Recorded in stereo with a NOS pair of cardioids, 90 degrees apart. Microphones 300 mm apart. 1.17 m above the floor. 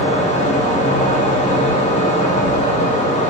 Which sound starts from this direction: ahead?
A fan, at 0.0 s.